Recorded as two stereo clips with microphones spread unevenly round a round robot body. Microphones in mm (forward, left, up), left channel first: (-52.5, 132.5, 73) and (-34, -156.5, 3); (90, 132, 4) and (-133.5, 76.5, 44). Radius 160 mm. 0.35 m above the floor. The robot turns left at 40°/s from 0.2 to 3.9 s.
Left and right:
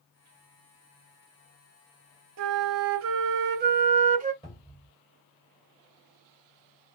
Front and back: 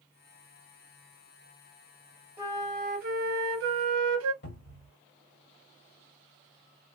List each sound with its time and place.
2.4 s a flute: 75° right, 0.8 m; by 4.3 s 140° right, 0.8 m
4.4 s a cupboard door: 10° left, 2.5 m